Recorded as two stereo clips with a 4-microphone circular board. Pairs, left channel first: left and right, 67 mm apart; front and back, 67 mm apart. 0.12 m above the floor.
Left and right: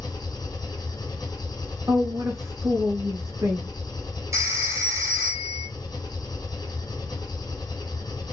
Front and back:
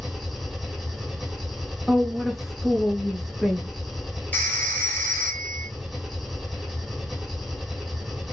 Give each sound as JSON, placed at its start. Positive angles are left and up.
{"t": 0.0, "sound": "an engine running", "azimuth_deg": 90, "distance_m": 1.5}
{"t": 1.9, "sound": "a woman speaking", "azimuth_deg": -95, "distance_m": 2.0}
{"t": 4.3, "sound": "a phone ringing", "azimuth_deg": -60, "distance_m": 1.8}